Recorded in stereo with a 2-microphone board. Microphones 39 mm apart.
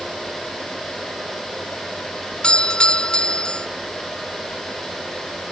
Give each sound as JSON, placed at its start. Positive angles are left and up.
{"t": 2.4, "sound": "a doorbell", "side_deg": 25}